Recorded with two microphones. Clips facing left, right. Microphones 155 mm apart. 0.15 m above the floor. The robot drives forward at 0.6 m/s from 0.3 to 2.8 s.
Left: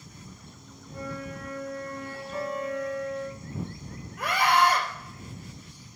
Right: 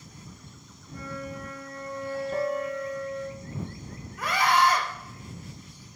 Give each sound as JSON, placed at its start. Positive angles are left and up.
{"t": 0.9, "sound": "a flute", "side_deg": 10, "distance_m": 3.5}
{"t": 2.3, "sound": "a piano", "side_deg": -55, "distance_m": 1.2}
{"t": 4.2, "sound": "a scream", "side_deg": 55, "distance_m": 3.0}